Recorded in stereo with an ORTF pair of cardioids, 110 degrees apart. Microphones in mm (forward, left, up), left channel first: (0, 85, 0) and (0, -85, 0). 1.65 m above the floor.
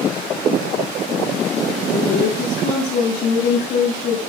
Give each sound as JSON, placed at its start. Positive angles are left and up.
{"t": 1.9, "sound": "a woman speaking", "azimuth_deg": 65, "distance_m": 8.5}